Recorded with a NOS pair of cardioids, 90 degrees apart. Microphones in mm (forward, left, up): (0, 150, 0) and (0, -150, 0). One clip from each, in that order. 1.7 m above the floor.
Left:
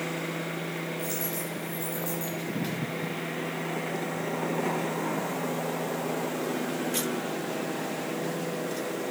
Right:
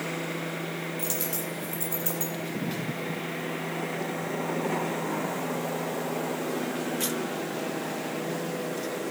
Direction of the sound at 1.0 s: 60° right.